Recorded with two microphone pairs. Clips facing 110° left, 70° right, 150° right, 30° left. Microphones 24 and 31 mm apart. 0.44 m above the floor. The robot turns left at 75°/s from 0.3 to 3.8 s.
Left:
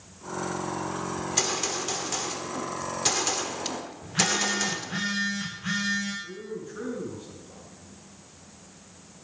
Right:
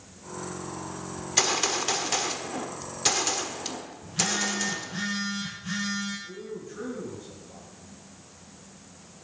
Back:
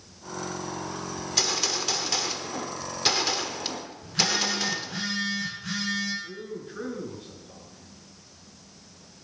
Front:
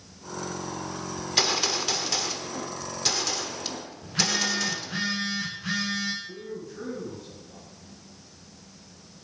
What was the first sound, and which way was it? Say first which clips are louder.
A gunshot: right 4 dB, front 3 dB; 5° right.